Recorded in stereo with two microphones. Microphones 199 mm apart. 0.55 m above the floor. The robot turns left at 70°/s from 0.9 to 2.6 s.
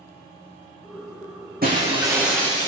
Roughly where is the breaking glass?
Behind right.